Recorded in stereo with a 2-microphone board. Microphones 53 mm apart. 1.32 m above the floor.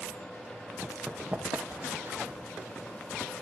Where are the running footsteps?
10° right (ahead or behind), 3 m; by 2.3 s 50° right (ahead or behind), 3.5 m.